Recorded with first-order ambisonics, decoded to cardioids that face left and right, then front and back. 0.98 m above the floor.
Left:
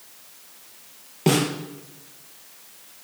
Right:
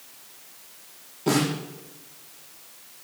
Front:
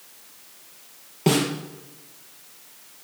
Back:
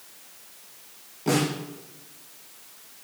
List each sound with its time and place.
1.3 s a snare drum: 45° left, 5 m